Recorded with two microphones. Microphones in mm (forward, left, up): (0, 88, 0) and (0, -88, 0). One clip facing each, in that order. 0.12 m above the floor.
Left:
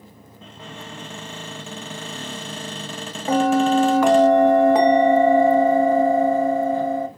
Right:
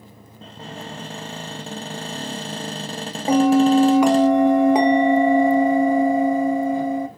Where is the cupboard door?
40° right (ahead or behind), 1.1 m.